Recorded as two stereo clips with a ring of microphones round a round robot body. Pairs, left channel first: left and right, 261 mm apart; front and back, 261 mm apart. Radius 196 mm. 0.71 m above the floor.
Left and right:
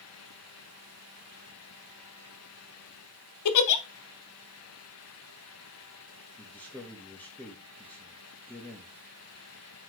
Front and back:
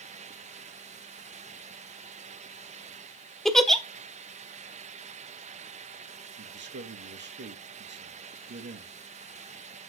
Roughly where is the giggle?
Left.